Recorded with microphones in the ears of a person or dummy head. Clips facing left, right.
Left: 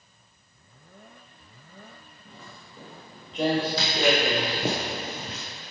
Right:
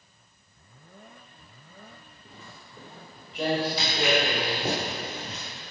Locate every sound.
2.2 s footsteps: 10° right (ahead or behind), 1.2 m; by 4.6 s 25° left (ahead or behind), 3 m
3.8 s footsteps: 55° left (ahead or behind), 2.5 m; by 5.4 s 35° left (ahead or behind), 1.4 m